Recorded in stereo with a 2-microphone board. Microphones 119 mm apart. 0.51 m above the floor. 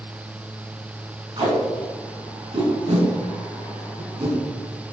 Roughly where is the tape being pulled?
Right.